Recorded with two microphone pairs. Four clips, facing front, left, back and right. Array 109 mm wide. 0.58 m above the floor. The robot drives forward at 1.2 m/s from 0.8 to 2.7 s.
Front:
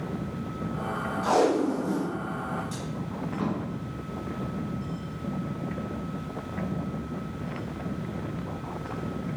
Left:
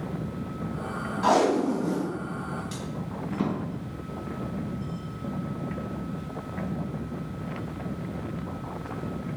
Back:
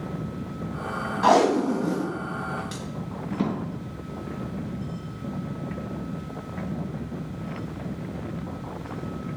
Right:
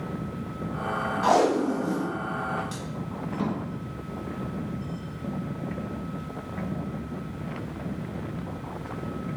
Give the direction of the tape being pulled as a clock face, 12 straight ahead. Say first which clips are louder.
Even, back 4 dB; 6 o'clock.